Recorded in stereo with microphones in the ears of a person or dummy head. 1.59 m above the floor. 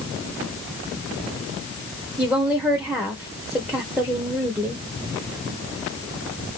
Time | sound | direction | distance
2.2 | a woman speaking | centre (ahead or behind) | 0.9 m